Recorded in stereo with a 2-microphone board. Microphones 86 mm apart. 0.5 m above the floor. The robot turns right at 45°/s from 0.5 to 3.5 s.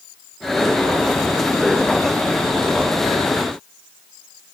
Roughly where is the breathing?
No breathing in this recording.